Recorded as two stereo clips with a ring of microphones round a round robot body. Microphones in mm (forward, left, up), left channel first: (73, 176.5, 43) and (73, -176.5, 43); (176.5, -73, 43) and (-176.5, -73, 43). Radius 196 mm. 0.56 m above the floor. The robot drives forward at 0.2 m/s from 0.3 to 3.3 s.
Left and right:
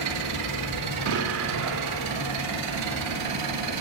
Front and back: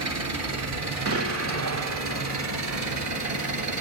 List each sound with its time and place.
0.0 s an engine running: 135° right, 5 m; by 3.8 s 140° right, 5.5 m
1.1 s an explosion: 135° right, 1.7 m; by 2.4 s 140° right, 1.8 m